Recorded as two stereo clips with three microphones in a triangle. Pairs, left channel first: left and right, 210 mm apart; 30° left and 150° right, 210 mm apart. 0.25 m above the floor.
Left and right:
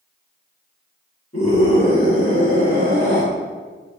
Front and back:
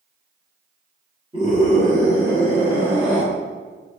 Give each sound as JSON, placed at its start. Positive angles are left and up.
{"t": 1.3, "sound": "a scream", "azimuth_deg": 145, "distance_m": 4.0}